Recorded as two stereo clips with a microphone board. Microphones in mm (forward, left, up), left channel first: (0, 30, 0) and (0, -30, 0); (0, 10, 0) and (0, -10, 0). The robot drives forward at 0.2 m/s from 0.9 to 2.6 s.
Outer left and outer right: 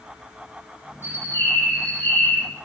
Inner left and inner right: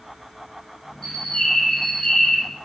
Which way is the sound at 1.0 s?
35° left (ahead or behind).